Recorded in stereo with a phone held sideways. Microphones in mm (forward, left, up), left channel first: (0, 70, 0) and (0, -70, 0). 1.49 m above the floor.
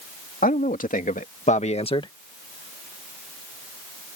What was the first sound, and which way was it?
A man speaking, 75° left (ahead or behind).